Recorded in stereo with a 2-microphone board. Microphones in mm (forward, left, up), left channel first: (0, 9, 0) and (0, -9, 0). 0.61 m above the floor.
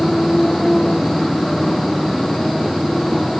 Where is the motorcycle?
25° left (ahead or behind); by 3.4 s 20° left (ahead or behind).